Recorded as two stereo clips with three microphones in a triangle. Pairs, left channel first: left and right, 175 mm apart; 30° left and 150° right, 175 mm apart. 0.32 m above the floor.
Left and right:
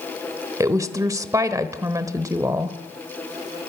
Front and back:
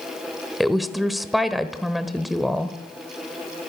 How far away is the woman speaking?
About 1.1 m.